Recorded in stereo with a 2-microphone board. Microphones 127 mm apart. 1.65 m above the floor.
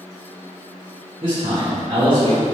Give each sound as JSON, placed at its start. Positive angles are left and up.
{"t": 1.2, "sound": "a man speaking", "side_deg": -45, "distance_m": 2.0}